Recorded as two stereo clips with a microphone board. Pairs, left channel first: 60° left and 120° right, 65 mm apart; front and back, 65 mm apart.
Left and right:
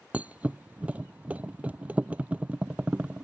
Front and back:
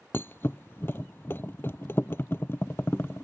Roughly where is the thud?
Ahead right.